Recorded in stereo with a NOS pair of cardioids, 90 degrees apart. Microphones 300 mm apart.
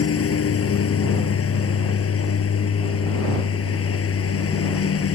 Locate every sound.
0.0 s a lawn mower: 50° left